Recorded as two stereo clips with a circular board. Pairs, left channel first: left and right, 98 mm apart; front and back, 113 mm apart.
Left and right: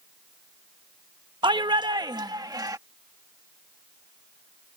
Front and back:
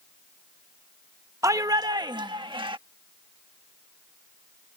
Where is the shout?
120° right; by 2.8 s 140° right.